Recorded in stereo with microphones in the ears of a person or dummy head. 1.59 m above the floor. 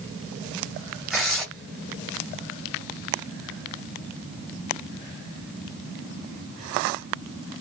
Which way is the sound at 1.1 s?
Centre (ahead or behind).